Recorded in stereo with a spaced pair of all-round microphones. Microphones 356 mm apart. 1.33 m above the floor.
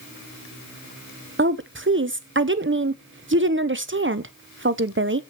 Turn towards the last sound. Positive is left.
turn(degrees=-35)  # may be behind; listen again after turning